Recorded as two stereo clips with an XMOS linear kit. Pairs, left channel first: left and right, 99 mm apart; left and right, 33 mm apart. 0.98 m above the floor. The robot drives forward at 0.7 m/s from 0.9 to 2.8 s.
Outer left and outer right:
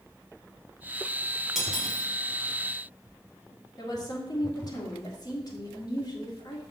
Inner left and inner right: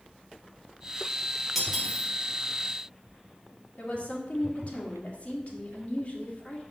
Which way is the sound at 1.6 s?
5° right (ahead or behind).